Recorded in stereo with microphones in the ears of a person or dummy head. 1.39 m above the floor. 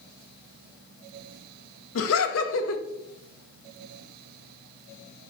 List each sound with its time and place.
1.9 s laughter: 85° left, 1.0 m